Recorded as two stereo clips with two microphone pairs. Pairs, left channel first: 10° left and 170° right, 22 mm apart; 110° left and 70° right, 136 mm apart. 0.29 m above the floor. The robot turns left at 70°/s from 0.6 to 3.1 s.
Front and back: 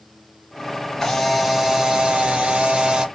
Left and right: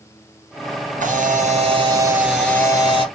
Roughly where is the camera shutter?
Ahead right.